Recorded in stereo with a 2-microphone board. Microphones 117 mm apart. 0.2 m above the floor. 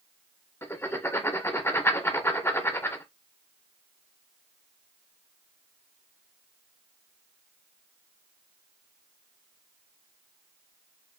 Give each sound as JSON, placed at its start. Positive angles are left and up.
{"t": 0.6, "sound": "writing", "side_deg": 20, "distance_m": 0.7}